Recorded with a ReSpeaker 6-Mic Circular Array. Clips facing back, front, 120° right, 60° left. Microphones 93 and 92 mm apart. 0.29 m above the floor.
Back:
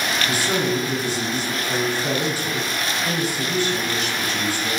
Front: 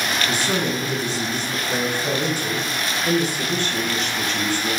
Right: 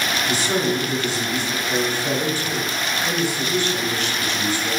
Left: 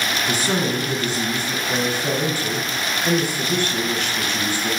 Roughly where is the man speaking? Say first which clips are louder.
Back 1 dB, right 1 dB; left.